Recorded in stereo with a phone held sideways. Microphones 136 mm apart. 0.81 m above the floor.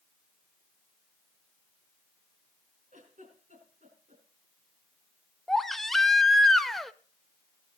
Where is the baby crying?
Centre (ahead or behind), 0.7 m.